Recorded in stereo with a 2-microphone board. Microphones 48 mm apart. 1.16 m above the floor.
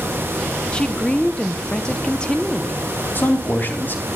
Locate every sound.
0.7 s a woman speaking: 15° left (ahead or behind), 1.0 m
3.1 s a man speaking: 45° left (ahead or behind), 3 m